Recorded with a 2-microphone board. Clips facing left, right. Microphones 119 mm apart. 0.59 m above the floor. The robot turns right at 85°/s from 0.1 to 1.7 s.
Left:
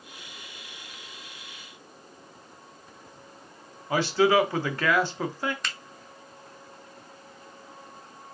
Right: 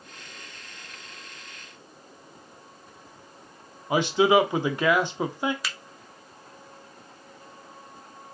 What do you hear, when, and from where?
3.9 s a man speaking: 20° right (ahead or behind), 0.6 m
5.6 s a finger snap: 5° right (ahead or behind), 0.5 m